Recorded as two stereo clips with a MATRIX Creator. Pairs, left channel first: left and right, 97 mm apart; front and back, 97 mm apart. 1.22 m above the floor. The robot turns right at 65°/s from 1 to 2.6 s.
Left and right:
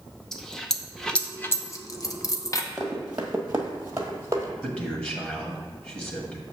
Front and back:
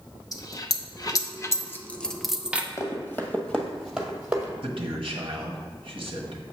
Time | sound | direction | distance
0.3 | a dropped coin | 10° left | 0.6 m
2.8 | running footsteps | 20° right | 1.3 m
4.6 | a man speaking | 160° left | 1.3 m